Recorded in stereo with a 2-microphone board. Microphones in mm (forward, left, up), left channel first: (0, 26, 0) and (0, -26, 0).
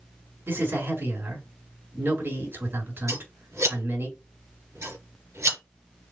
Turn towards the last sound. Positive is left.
turn(degrees=-75)  # may be behind; listen again after turning